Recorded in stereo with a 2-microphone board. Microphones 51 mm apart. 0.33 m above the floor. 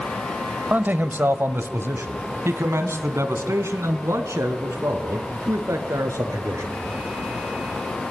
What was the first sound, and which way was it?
A man speaking, 35° right (ahead or behind).